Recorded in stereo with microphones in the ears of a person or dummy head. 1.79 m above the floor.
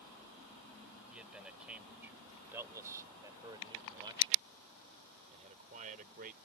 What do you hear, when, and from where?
1.1 s a man speaking: 5° right (ahead or behind); by 6.4 s 45° right (ahead or behind)